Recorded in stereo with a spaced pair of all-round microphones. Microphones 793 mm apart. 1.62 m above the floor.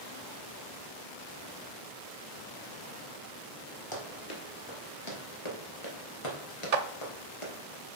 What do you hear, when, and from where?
3.9 s running footsteps: 25° left (ahead or behind), 2.5 m; by 7.5 s 40° left (ahead or behind), 2.5 m
6.7 s a clap: 55° right (ahead or behind), 0.8 m